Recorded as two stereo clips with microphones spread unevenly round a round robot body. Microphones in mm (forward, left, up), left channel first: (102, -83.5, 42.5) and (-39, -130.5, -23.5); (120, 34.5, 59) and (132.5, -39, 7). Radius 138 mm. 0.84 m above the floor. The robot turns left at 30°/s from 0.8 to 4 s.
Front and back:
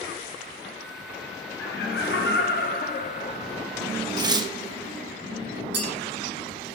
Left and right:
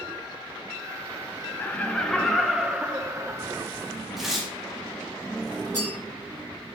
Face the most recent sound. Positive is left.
turn(degrees=-165)